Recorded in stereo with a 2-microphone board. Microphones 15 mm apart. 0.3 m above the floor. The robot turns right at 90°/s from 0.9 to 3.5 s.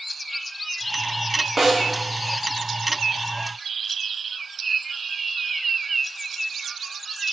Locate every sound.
1.6 s a snare drum: 20° right (ahead or behind), 0.9 m; by 1.8 s 40° right (ahead or behind), 0.9 m